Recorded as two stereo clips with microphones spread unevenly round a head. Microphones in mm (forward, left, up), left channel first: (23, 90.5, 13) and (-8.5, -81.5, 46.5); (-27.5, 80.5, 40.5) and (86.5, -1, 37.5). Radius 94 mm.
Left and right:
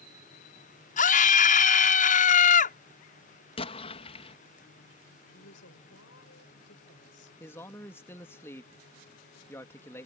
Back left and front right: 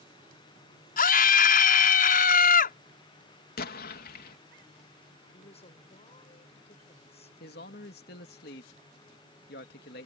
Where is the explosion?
140° left.